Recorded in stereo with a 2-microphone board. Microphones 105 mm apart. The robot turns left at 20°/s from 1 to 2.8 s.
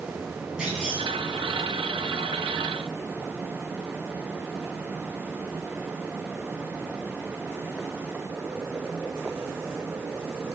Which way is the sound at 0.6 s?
10° right (ahead or behind).